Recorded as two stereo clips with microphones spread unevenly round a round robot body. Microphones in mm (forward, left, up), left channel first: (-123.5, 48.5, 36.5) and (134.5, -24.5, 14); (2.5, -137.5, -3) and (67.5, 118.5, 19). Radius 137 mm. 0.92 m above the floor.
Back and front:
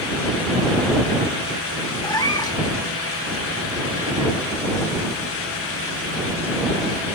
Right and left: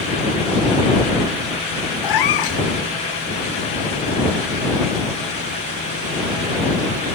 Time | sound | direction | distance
2.0 | a cat meowing | 120° right | ?